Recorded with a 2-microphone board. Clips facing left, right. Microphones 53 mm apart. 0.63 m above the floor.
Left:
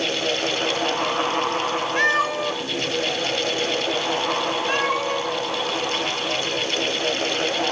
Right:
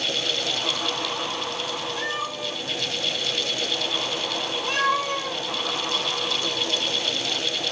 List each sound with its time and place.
2.0 s a cat meowing: 55° left (ahead or behind), 1.2 m; by 5.4 s 5° left (ahead or behind), 4 m